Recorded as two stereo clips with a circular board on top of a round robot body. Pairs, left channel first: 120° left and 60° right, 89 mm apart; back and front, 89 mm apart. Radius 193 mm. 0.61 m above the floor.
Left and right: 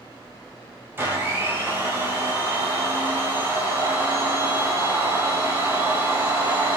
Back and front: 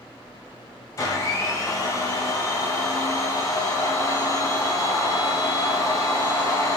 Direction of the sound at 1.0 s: 125° right.